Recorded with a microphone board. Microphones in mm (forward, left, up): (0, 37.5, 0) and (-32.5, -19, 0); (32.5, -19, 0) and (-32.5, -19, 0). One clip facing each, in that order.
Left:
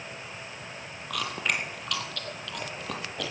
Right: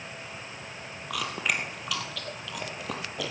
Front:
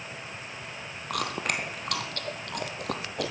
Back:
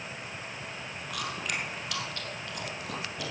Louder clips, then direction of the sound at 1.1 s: Even, front 5 dB; 35° right.